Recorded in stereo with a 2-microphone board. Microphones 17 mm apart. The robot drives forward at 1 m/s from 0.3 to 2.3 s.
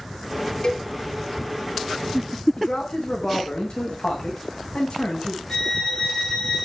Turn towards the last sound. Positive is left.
turn(degrees=40)  # may be behind; listen again after turning